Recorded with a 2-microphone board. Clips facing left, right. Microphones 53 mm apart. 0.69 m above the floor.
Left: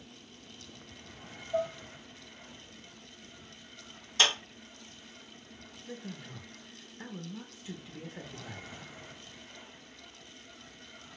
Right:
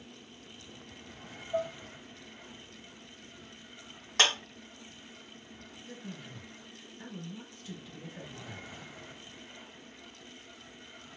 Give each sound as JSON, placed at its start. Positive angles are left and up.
{"t": 1.5, "sound": "dishes clattering", "side_deg": -10, "distance_m": 0.8}
{"t": 4.2, "sound": "a clap", "side_deg": -65, "distance_m": 1.4}
{"t": 5.9, "sound": "a man speaking", "side_deg": 20, "distance_m": 0.6}